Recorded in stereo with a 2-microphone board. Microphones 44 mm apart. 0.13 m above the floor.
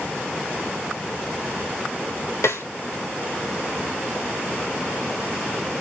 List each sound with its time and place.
2.4 s a snare drum: 85° left, 6 m